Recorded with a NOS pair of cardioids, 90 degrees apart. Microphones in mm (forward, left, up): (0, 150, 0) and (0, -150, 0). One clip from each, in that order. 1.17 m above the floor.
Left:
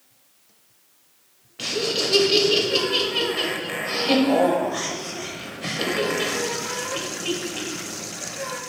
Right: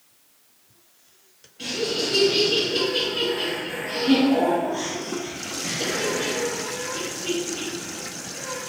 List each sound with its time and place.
1.6 s laughter: 65° left, 0.8 m